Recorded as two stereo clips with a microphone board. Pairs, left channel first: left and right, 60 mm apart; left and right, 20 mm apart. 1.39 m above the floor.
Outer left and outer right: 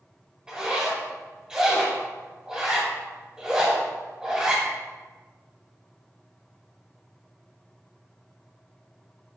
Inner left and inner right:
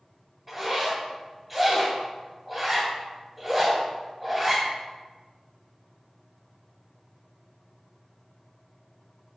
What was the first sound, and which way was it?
A zipper, 15° right (ahead or behind).